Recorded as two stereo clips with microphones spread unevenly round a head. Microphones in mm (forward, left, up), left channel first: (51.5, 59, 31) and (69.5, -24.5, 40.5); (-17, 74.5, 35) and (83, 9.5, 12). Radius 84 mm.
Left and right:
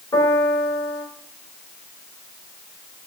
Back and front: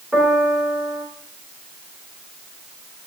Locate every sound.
0.1 s a piano: 55° left, 4 m